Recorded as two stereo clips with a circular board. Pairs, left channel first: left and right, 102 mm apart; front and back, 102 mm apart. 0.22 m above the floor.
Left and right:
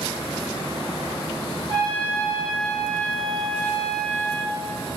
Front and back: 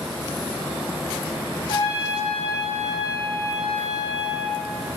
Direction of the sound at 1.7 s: 45° right.